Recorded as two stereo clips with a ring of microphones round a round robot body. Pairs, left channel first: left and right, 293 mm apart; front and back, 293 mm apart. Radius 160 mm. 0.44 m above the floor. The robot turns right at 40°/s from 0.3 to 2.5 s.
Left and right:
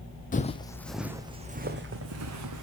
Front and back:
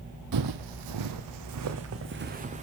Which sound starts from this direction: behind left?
Footsteps, at 0.3 s.